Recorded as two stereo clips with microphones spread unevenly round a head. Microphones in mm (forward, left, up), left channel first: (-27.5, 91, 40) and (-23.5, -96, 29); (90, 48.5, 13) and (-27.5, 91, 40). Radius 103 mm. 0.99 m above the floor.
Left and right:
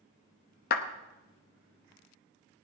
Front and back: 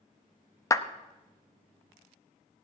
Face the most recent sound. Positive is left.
turn(degrees=45)